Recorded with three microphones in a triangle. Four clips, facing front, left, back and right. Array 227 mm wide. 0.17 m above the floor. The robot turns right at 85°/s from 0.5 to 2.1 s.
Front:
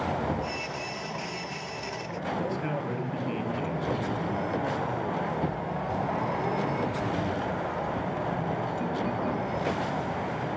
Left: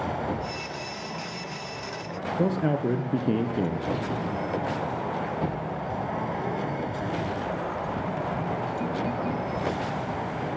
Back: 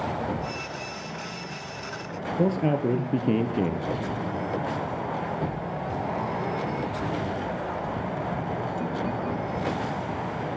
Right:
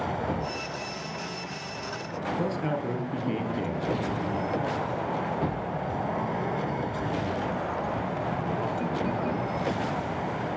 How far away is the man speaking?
About 2.5 m.